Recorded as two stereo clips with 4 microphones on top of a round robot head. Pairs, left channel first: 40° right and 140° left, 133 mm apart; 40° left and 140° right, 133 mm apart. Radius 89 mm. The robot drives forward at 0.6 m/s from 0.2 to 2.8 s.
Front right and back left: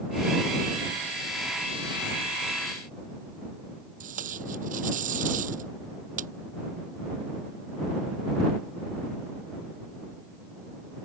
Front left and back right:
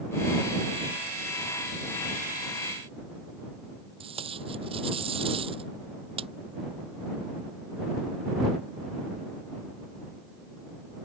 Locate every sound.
4.0 s tape being pulled: 170° left